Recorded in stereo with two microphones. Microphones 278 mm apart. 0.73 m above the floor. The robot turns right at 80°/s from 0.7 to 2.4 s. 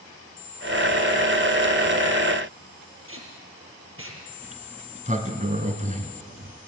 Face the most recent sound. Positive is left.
turn(degrees=-25)  # may be behind; listen again after turning